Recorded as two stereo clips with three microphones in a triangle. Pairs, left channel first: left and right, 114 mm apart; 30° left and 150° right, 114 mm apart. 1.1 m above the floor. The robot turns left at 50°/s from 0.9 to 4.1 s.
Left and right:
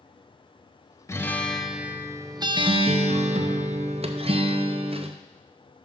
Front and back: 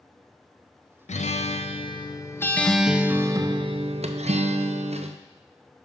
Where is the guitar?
25° left, 0.5 m; by 5.2 s 125° right, 0.5 m.